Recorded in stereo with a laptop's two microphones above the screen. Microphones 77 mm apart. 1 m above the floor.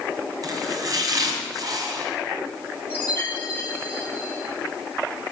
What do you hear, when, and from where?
0.4 s chopping: 55° right (ahead or behind), 2.5 m
2.9 s a chime: 25° left (ahead or behind), 4 m